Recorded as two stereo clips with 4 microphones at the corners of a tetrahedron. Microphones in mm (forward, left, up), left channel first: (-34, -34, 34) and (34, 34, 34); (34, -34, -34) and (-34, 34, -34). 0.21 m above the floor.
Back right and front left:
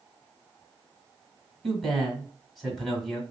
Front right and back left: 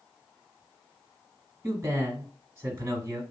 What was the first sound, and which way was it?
A man speaking, 140° left.